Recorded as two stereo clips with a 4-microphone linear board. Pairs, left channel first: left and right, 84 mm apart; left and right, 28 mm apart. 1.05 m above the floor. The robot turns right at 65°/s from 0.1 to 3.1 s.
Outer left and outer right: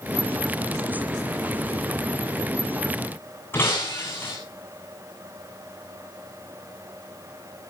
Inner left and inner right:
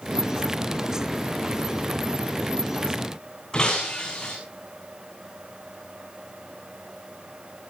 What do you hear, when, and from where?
3.5 s breaking glass: 25° left (ahead or behind), 8.5 m